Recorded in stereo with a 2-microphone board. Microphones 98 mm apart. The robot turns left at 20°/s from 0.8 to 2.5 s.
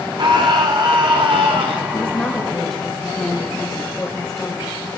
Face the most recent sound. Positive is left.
turn(degrees=10)  # may be behind; listen again after turning